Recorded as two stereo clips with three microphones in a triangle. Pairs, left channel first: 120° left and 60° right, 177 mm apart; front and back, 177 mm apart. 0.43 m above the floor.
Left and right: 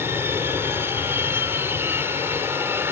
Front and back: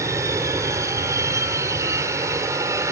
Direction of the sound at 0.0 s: 125° right.